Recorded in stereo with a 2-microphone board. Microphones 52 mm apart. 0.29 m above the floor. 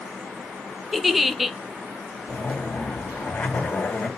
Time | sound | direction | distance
0.9 | a giggle | 5° right (ahead or behind) | 0.6 m
2.3 | a zipper | 30° left (ahead or behind) | 2.5 m